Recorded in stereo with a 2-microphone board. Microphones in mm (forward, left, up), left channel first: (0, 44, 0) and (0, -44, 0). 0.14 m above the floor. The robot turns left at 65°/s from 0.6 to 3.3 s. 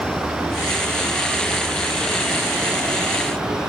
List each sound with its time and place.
0.0 s an insect: 110° left; by 3.7 s 65° right